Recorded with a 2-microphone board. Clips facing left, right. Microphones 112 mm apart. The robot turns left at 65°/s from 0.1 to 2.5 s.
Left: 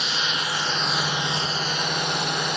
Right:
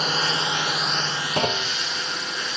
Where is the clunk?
65° right (ahead or behind); by 1.8 s 85° right.